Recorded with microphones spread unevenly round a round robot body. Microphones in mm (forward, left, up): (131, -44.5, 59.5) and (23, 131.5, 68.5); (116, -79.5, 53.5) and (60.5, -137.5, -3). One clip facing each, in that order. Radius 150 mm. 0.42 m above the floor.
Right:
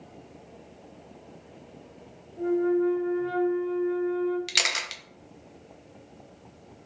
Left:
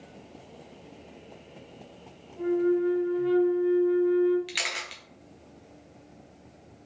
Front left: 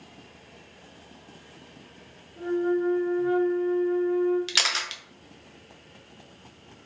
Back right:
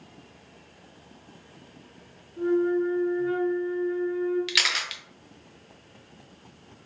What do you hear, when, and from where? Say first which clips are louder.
2.4 s a flute: even, back right 2 dB; 85° left, 0.6 m
4.5 s a camera shutter: right 2 dB, even; 35° right, 0.6 m